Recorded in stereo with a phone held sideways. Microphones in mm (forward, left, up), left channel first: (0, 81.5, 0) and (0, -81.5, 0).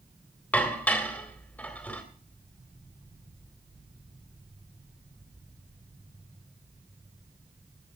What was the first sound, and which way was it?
Dishes clattering, 10° left (ahead or behind).